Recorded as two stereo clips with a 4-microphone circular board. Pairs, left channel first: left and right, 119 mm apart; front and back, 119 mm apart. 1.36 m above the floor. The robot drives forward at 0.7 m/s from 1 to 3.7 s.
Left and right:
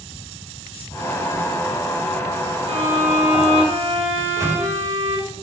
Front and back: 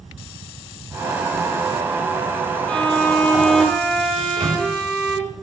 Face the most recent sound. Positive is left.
turn(degrees=-150)